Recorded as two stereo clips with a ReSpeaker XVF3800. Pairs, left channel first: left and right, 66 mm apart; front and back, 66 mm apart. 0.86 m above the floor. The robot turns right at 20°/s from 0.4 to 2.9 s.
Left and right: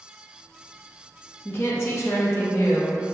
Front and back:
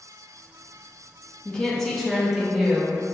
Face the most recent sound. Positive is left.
turn(degrees=105)